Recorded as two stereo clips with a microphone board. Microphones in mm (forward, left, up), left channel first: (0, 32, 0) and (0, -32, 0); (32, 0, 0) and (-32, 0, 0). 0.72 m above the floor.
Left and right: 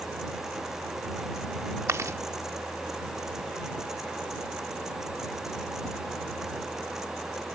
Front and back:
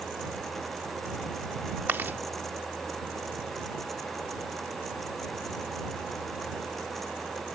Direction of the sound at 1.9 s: 125° right.